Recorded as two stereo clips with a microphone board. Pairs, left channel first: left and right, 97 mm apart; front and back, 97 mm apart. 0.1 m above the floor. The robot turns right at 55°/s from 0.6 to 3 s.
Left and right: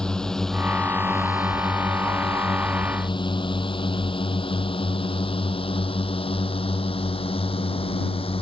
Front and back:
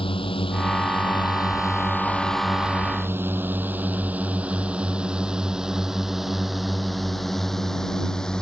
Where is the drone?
10° left; by 8.4 s 85° left.